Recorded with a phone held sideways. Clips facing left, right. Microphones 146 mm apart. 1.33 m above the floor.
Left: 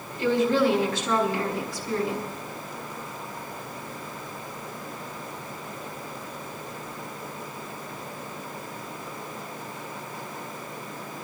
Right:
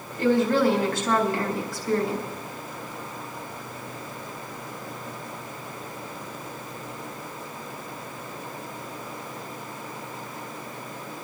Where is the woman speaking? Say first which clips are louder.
Right 1 dB; 50° right (ahead or behind), 5 m.